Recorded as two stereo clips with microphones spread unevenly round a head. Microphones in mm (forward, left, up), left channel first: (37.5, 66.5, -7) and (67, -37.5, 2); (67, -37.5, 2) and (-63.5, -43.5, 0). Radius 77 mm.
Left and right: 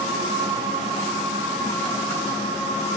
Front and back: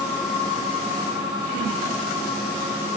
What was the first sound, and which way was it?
Only background noise.